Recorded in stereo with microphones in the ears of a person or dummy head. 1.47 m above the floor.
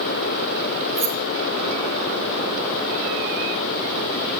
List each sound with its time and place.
0.9 s keys jangling: 10° right (ahead or behind), 5.5 m